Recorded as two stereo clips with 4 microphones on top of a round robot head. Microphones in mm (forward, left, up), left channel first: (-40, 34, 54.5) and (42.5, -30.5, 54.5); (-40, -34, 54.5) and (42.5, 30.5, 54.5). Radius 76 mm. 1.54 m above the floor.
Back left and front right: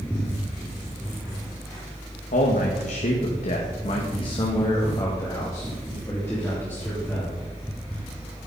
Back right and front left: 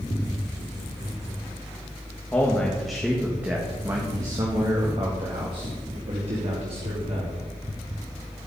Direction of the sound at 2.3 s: 140° left.